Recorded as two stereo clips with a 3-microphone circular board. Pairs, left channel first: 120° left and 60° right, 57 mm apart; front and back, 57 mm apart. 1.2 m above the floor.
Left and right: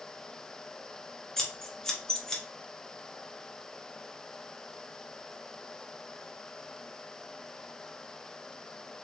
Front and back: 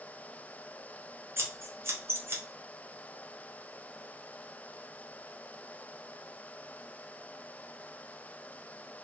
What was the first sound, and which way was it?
Scissors, 160° right.